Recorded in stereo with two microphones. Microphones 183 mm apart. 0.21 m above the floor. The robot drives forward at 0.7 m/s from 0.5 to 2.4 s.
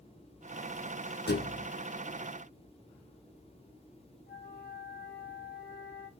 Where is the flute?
60° left (ahead or behind), 3.5 m.